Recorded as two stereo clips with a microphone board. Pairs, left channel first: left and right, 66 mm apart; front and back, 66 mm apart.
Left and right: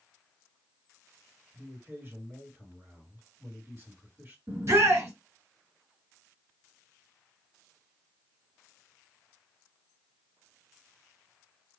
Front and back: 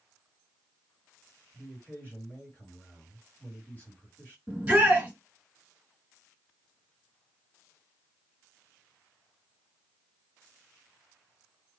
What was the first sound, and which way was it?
A man speaking, 50° right.